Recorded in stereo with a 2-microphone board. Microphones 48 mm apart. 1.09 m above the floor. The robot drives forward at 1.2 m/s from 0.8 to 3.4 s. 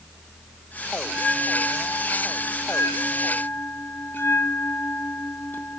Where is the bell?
25° left (ahead or behind), 2.5 m; by 5.8 s 45° left (ahead or behind), 1.4 m.